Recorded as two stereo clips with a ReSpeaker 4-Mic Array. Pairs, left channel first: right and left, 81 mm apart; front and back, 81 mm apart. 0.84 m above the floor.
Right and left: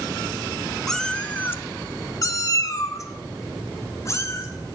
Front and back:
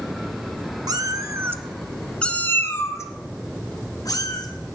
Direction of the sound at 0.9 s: 175° right.